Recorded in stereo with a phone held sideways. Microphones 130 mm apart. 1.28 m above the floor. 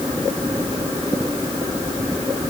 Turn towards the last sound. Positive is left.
No sound to turn to.